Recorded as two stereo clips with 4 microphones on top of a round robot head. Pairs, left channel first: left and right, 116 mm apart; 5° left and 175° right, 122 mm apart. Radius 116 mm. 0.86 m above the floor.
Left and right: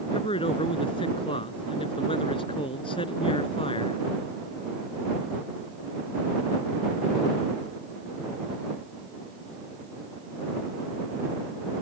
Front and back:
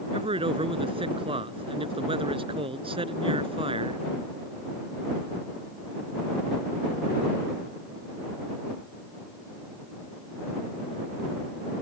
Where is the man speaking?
140° left.